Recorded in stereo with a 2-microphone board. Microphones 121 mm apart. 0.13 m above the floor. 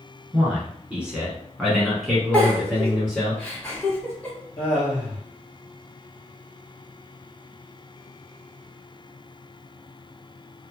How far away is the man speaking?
About 1.5 m.